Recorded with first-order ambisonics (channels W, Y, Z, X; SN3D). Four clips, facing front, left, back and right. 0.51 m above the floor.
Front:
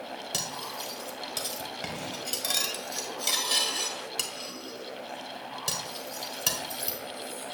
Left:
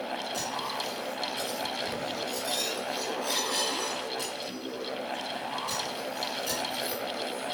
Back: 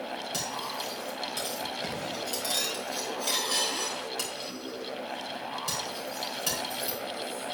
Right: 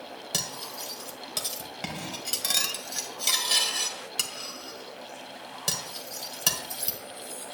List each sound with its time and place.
0.3 s cutlery clinking: 65° right, 1.3 m